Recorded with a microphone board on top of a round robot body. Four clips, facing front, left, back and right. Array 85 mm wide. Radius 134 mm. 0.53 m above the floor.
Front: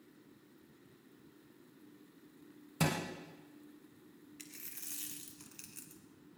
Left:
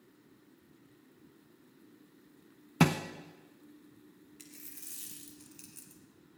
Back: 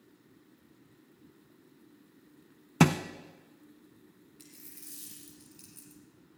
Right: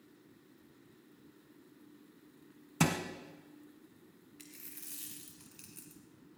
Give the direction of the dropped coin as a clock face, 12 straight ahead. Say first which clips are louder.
Right 1 dB, back 1 dB; 12 o'clock.